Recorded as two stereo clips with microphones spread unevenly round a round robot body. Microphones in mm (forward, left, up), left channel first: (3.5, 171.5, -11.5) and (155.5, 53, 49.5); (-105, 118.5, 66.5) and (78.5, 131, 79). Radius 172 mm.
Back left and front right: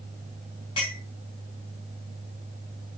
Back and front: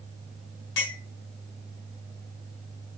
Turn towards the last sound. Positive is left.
turn(degrees=-145)